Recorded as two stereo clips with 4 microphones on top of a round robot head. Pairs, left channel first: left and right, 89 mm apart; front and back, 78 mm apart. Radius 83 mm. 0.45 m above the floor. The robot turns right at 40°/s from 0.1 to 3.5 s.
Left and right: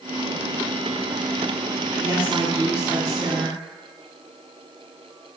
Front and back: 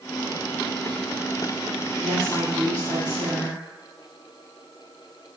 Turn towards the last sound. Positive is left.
turn(degrees=-35)